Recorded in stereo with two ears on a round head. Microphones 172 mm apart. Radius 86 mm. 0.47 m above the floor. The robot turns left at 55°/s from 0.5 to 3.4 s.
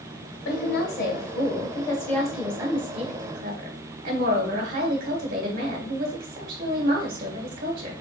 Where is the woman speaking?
100° left, 2 m; by 8.0 s 60° right, 2 m.